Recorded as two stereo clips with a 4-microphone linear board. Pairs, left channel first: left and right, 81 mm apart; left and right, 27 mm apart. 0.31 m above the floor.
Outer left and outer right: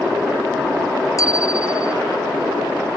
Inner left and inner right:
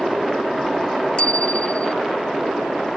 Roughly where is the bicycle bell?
Left.